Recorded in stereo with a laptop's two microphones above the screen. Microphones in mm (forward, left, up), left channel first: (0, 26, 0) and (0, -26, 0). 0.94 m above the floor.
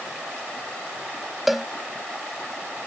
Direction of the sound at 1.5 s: 5° right (ahead or behind).